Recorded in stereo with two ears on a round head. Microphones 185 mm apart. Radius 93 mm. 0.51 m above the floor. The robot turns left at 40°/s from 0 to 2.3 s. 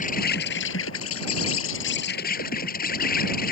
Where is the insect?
140° left; by 3.5 s 45° left.